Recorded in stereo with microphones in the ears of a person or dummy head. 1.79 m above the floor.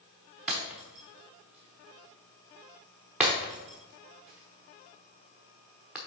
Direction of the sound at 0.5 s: Centre (ahead or behind).